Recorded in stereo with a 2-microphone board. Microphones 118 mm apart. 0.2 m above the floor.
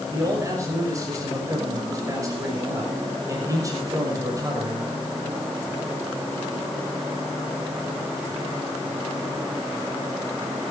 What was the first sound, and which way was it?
A man speaking, 30° right (ahead or behind).